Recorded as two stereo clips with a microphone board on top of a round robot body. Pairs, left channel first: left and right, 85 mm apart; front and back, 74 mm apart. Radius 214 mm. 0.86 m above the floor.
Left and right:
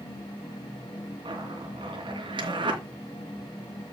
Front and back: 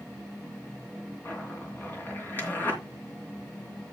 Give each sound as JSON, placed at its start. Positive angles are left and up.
{"t": 1.2, "sound": "a zipper", "azimuth_deg": -65, "distance_m": 2.5}